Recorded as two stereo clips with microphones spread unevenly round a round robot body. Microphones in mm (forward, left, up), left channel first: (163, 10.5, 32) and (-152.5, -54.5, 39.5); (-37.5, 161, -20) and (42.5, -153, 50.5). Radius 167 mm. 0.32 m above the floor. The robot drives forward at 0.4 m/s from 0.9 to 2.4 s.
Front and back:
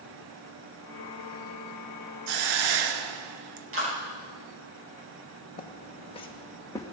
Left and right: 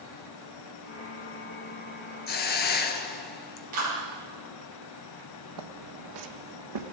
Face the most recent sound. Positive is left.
turn(degrees=-70)